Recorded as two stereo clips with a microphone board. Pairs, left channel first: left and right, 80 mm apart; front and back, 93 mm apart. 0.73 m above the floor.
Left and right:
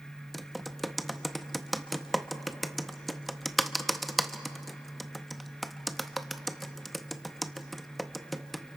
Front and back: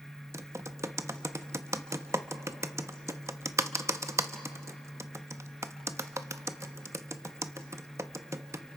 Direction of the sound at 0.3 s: Straight behind.